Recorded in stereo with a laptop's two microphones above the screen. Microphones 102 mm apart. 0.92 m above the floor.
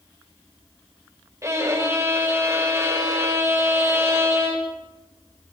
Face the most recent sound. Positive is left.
turn(degrees=-30)  # may be behind; listen again after turning